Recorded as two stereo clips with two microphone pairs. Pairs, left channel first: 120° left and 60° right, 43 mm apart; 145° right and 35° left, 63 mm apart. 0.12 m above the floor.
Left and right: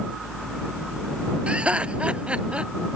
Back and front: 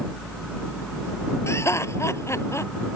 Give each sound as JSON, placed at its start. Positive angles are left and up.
{"t": 1.5, "sound": "laughter", "azimuth_deg": -115}